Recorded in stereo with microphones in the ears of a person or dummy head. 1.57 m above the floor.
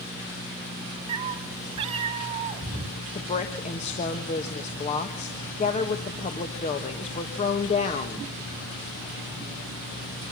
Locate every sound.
1.1 s a cat meowing: 30° right (ahead or behind), 1.5 m
3.1 s a woman speaking: 35° left (ahead or behind), 1.5 m